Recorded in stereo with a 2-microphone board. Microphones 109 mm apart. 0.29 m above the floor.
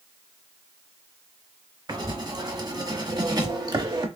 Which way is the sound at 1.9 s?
40° right (ahead or behind).